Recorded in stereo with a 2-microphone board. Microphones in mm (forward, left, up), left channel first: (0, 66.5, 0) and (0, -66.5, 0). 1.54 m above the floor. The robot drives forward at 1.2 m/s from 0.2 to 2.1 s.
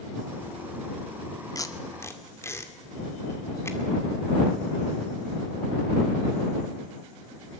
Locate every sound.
1.6 s tape being pulled: 25° left (ahead or behind), 1.5 m; by 3.8 s 20° left (ahead or behind), 2 m